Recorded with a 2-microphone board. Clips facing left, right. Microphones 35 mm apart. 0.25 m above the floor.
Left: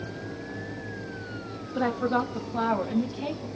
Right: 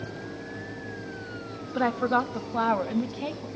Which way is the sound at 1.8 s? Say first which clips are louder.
Right 1 dB; 20° right (ahead or behind).